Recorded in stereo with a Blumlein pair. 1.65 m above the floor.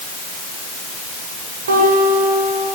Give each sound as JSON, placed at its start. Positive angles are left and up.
{"t": 1.7, "sound": "a guitar", "azimuth_deg": -65, "distance_m": 7.5}